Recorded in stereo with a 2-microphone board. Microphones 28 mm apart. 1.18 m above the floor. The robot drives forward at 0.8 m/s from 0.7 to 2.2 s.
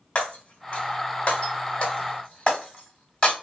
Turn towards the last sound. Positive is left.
turn(degrees=30)  # may be behind; listen again after turning